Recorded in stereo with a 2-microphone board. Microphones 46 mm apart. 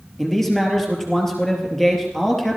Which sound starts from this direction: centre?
A man speaking, at 0.2 s.